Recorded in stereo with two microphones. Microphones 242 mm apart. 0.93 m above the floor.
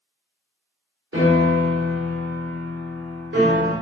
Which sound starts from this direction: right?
A piano, at 1.1 s.